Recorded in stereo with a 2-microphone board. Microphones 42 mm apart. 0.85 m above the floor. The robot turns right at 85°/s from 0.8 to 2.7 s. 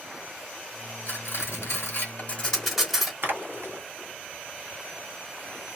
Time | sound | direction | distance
1.1 | cutlery clinking | 35° left (ahead or behind) | 1.8 m
3.2 | a splash | 55° right (ahead or behind) | 1.6 m